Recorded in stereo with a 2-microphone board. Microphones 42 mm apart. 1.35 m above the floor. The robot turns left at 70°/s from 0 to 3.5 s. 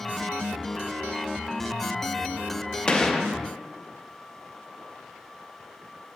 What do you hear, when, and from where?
2.9 s a gunshot: 40° left, 0.5 m; by 3.3 s 5° left, 0.5 m